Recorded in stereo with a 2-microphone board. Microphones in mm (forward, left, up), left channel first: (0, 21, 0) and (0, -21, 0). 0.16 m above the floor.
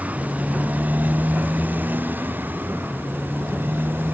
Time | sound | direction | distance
0.0 | a motorcycle | 35° right (ahead or behind) | ?